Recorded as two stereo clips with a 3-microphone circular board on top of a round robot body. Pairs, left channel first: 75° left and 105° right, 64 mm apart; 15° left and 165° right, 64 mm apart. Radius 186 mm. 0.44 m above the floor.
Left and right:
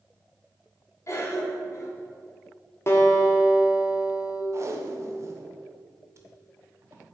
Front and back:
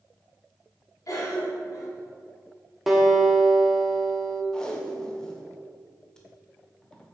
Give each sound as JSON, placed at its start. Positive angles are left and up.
{"t": 1.1, "sound": "a cough", "azimuth_deg": 40, "distance_m": 3.0}
{"t": 2.9, "sound": "a guitar", "azimuth_deg": 110, "distance_m": 2.0}
{"t": 4.5, "sound": "tape being pulled", "azimuth_deg": -60, "distance_m": 1.4}